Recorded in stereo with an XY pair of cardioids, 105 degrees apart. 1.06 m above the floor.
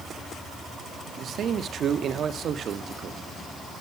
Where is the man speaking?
55° right, 1.6 m.